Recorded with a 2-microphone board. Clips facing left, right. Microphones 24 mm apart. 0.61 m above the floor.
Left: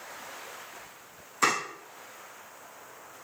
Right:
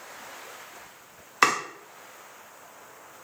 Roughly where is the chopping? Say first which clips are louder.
Right 4 dB; right.